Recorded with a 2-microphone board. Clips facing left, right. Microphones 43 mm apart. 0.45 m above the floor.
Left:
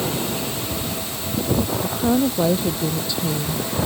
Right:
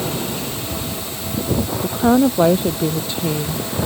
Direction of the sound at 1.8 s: 40° right (ahead or behind).